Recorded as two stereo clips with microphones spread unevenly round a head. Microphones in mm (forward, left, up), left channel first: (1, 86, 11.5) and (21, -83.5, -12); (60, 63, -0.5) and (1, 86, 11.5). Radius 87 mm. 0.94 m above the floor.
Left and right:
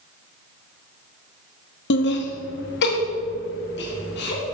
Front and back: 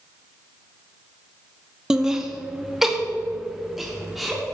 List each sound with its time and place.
1.9 s laughter: 75° left, 1.0 m; by 4.4 s 70° left, 2.5 m